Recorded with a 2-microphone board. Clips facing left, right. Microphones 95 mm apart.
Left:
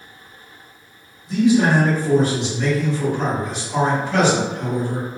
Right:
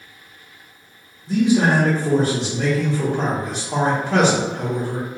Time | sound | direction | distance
1.3 | a man speaking | 85° right | 1.6 m